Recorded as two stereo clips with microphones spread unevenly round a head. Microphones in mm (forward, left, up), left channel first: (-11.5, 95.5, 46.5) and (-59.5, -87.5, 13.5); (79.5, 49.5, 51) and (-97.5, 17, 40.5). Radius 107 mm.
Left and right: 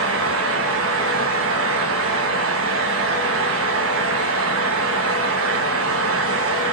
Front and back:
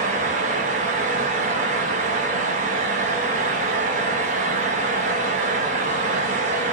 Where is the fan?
115° right, 1.3 m.